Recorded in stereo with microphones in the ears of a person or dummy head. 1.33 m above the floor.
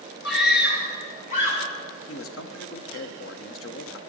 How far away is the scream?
About 3 m.